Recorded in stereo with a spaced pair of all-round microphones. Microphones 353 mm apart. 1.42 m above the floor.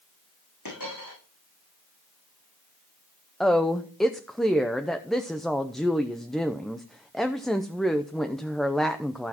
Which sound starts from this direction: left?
A dropped coin, at 0.7 s.